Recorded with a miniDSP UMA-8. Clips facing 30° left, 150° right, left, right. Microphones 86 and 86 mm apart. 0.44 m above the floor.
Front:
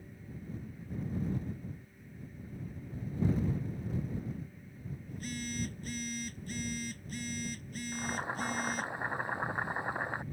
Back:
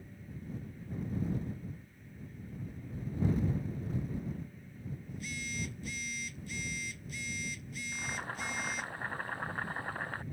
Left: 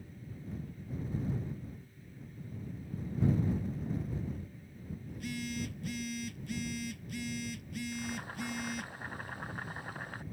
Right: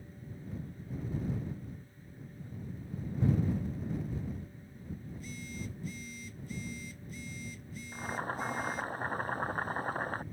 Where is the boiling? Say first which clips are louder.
Front 4 dB, right 3 dB; 40° right.